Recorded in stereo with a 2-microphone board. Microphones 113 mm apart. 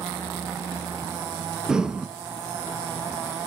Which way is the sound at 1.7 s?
5° right (ahead or behind).